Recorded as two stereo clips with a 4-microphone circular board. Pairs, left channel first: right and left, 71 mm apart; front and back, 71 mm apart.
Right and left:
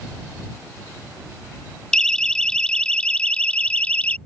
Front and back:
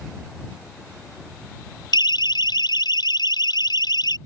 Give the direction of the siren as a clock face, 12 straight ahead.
12 o'clock.